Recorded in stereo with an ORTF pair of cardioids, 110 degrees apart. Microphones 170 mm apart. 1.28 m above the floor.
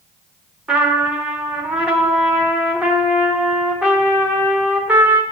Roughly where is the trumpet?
Ahead.